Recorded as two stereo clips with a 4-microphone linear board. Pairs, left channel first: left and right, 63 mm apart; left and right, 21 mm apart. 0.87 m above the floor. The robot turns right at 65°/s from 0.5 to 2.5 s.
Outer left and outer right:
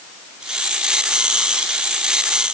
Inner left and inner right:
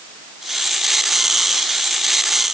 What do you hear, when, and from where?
Only background noise.